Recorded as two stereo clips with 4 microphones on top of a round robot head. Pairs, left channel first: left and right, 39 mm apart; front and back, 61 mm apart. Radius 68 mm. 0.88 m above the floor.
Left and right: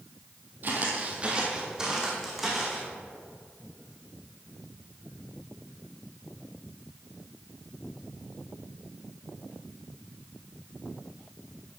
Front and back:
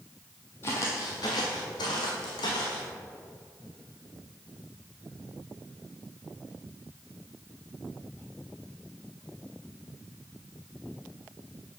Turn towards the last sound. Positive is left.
turn(degrees=0)